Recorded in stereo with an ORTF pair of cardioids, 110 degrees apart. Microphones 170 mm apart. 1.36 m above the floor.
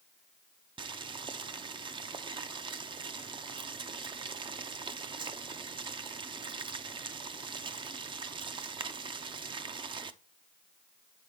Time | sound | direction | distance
0.8 | boiling | 30° right | 0.6 m